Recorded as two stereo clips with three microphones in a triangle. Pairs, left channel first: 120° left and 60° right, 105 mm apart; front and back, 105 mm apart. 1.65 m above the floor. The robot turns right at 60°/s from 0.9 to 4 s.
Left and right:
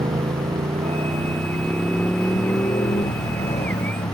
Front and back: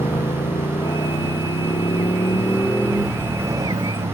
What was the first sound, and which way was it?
A motorcycle, 40° right.